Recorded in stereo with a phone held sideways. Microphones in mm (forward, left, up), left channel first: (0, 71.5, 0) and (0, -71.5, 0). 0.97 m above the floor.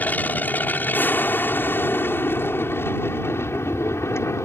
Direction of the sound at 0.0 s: 10° left (ahead or behind).